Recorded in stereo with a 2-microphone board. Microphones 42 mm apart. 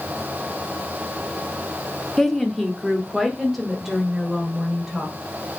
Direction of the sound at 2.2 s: 10° left (ahead or behind).